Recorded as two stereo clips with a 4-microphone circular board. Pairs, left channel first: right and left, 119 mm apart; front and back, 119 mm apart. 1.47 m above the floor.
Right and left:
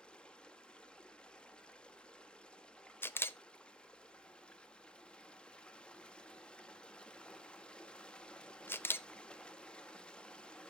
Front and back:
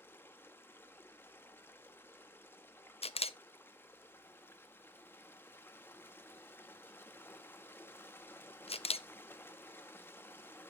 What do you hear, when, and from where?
0.0 s running water: 25° right, 0.9 m
3.0 s a camera shutter: 20° right, 0.5 m